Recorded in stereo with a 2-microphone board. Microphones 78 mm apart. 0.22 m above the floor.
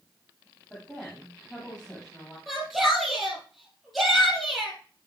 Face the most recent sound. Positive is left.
turn(degrees=0)  # may be behind; listen again after turning